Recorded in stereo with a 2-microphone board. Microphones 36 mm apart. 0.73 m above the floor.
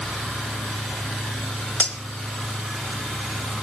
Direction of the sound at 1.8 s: 35° left (ahead or behind).